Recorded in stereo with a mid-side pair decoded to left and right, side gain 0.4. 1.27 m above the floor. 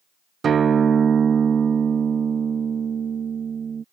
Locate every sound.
0.4 s a guitar: 55° right